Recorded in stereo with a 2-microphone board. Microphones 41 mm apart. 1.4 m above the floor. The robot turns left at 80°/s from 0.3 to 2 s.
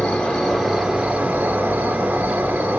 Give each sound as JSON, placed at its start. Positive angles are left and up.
{"t": 0.0, "sound": "an insect", "azimuth_deg": 30, "distance_m": 2.0}